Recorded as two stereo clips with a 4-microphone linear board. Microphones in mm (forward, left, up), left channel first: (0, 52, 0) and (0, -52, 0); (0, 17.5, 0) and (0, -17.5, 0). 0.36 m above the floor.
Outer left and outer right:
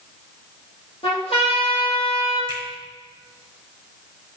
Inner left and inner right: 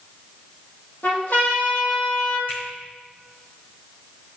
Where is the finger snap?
50° left (ahead or behind), 2.5 m.